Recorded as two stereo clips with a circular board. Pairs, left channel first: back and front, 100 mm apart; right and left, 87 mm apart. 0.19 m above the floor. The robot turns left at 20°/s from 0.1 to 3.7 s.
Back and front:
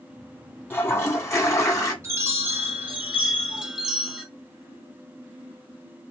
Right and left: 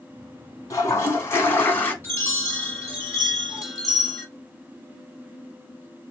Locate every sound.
0.7 s a toilet flushing: 120° right, 0.9 m; by 1.9 s 145° right, 0.9 m
2.0 s a chime: 45° right, 1.2 m; by 4.2 s 75° right, 1.2 m